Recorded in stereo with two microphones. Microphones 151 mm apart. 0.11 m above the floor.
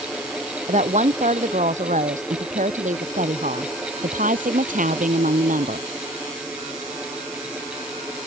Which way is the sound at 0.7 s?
50° right (ahead or behind).